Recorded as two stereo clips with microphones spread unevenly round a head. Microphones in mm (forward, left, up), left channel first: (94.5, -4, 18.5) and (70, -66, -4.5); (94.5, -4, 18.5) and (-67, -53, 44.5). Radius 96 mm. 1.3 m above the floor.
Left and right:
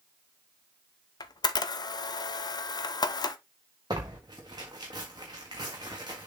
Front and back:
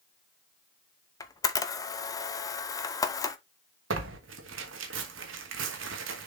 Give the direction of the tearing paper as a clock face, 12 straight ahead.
6 o'clock.